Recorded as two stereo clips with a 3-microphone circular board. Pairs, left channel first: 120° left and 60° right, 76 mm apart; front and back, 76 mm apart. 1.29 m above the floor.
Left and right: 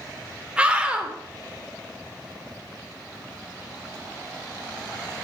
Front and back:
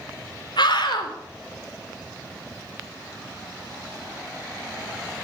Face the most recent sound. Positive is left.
turn(degrees=15)